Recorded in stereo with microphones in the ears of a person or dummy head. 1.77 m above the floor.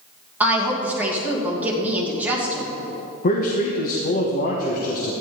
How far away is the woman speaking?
About 2.5 m.